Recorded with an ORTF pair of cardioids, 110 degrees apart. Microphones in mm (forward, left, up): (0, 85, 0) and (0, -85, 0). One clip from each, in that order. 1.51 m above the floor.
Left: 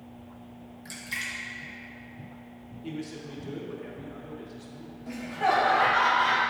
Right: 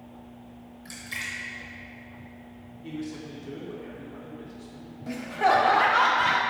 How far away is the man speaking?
About 1.5 m.